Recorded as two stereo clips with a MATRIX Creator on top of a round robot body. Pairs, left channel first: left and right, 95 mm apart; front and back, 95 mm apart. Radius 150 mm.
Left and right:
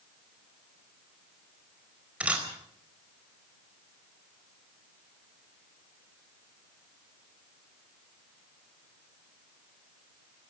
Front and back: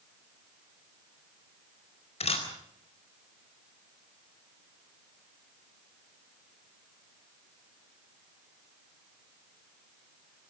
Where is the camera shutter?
10° right, 4.5 m.